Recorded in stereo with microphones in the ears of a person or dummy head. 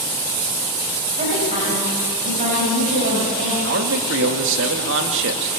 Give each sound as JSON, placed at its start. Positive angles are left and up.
{"t": 1.2, "sound": "a woman speaking", "side_deg": -35, "distance_m": 6.0}
{"t": 3.6, "sound": "a man speaking", "side_deg": -65, "distance_m": 2.0}